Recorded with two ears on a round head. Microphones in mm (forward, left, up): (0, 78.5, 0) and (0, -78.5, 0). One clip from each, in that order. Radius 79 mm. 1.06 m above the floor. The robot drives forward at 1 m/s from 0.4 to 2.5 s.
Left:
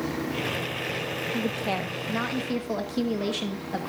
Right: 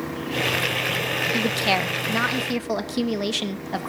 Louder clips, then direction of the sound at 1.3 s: Right 7 dB; 65° right (ahead or behind).